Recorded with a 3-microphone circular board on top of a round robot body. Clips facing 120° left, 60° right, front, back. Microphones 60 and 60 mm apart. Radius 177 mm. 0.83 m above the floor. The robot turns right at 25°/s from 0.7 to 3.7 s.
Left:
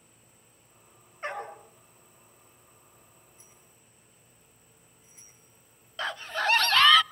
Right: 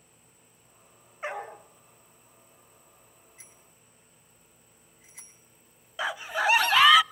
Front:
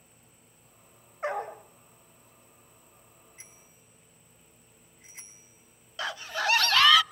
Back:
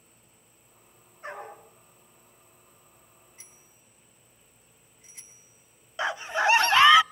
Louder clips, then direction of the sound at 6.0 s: Right 2 dB, back 5 dB; 130° right.